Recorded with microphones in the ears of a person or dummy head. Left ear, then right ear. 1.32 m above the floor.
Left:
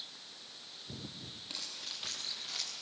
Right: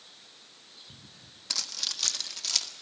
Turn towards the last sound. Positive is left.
turn(degrees=-70)  # may be behind; listen again after turning